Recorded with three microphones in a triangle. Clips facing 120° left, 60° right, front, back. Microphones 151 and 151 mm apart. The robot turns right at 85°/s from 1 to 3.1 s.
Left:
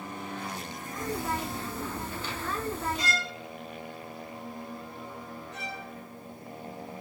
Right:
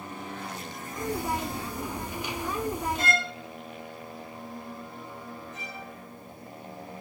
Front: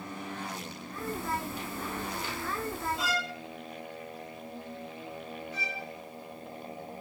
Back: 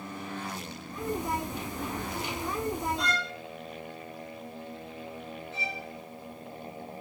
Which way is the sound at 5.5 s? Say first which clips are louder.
Left 2 dB, back 1 dB; 115° left.